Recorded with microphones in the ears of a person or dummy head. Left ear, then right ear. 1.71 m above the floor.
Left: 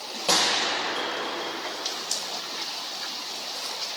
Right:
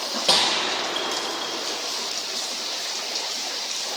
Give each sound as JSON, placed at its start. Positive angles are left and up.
{"t": 0.3, "sound": "a gunshot", "side_deg": -10, "distance_m": 8.5}